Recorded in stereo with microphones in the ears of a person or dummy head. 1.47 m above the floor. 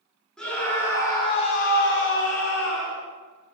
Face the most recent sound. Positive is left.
turn(degrees=60)  # may be behind; listen again after turning